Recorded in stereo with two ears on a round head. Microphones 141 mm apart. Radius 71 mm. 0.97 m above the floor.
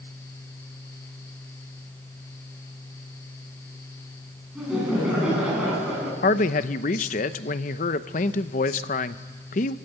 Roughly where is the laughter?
Centre.